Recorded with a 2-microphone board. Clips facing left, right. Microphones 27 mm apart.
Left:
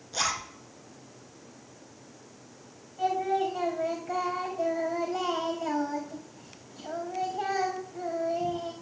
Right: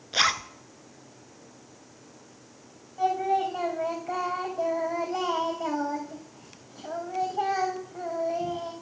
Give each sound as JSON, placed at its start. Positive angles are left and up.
{"t": 0.1, "sound": "a zipper", "side_deg": -55, "distance_m": 0.6}
{"t": 3.0, "sound": "singing", "side_deg": -75, "distance_m": 4.0}